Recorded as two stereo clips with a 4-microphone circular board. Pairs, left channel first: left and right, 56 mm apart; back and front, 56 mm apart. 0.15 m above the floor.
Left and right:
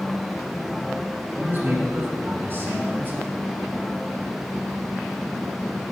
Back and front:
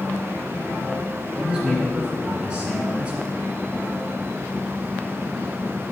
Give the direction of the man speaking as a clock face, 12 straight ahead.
2 o'clock.